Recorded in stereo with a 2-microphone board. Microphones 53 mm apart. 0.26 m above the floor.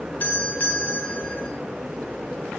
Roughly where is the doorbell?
Left.